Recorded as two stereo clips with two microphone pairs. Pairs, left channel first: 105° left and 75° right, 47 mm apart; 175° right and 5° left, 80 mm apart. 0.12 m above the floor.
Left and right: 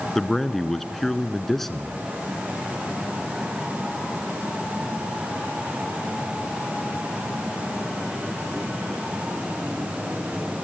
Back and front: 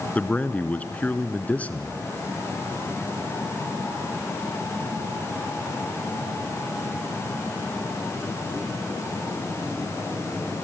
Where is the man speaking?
175° left, 1.2 m.